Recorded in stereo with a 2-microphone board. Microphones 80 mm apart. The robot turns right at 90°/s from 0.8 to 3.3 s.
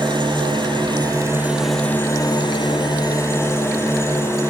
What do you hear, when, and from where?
0.0 s an engine running: 80° right, 5 m; by 4.5 s 145° left, 5 m